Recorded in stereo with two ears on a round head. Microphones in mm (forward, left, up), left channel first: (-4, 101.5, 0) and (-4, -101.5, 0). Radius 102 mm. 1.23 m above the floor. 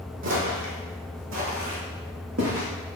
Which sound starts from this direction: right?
Footsteps, at 0.2 s.